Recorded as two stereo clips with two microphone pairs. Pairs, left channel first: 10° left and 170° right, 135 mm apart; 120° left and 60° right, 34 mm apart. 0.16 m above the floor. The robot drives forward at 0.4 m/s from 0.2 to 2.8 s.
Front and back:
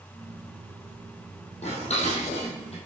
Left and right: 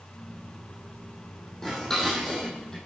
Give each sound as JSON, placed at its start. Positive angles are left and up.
{"t": 1.6, "sound": "dishes clattering", "azimuth_deg": 45, "distance_m": 5.0}